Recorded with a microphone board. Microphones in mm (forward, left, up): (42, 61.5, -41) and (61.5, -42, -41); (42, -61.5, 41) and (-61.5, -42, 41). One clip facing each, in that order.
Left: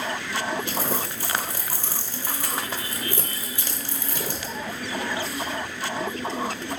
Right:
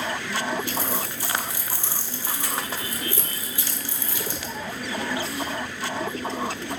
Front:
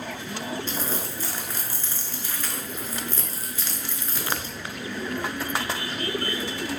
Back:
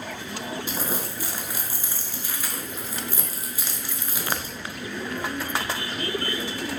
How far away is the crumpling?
About 0.5 m.